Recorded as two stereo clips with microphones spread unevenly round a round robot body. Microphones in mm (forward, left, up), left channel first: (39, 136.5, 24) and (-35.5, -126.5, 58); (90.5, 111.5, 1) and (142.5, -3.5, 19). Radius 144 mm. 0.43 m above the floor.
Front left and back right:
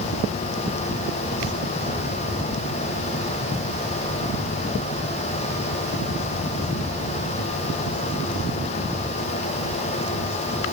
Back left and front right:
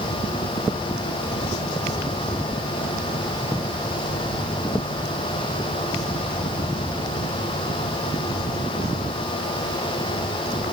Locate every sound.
Only background noise.